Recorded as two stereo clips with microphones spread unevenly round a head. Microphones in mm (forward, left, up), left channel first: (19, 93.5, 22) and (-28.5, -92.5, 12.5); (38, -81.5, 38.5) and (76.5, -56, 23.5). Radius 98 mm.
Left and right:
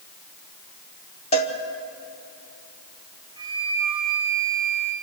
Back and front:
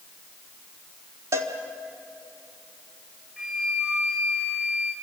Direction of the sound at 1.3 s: 30° left.